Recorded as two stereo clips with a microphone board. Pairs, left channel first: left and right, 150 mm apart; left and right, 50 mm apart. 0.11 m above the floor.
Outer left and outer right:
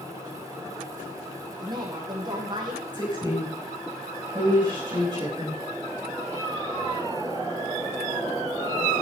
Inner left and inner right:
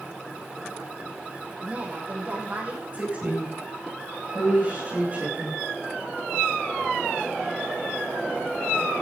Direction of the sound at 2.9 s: 30° right (ahead or behind).